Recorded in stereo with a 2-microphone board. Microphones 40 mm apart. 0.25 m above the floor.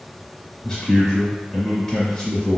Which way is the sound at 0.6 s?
10° left (ahead or behind).